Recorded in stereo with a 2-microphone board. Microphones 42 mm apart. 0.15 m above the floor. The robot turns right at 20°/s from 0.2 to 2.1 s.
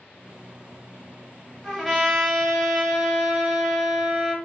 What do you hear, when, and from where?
1.6 s a trumpet: 5° left (ahead or behind), 1.4 m; by 4.3 s 5° right (ahead or behind), 1.4 m